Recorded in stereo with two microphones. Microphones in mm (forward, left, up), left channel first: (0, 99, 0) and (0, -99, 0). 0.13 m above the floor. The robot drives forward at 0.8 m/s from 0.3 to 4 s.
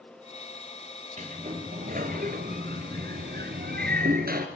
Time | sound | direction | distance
1.2 | a sliding door | 40° right (ahead or behind) | 2.5 m